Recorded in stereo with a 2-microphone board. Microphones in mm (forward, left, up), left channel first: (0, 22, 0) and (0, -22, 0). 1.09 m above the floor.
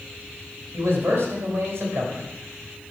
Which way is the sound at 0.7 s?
70° right (ahead or behind).